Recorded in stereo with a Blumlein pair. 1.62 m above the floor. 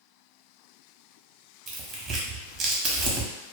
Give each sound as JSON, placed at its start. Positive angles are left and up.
{"t": 1.7, "sound": "tearing paper", "azimuth_deg": -25, "distance_m": 1.0}